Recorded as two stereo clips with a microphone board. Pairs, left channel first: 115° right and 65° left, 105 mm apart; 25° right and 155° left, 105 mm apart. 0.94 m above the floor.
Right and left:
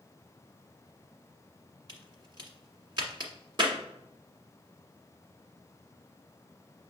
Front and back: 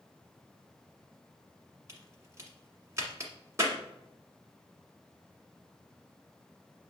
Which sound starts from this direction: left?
A crack, at 1.9 s.